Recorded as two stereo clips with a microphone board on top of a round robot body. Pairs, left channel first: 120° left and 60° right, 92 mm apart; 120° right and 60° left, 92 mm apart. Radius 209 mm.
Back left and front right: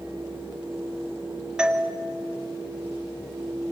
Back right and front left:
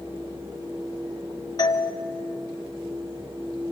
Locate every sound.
1.6 s a doorbell: 140° right, 1.3 m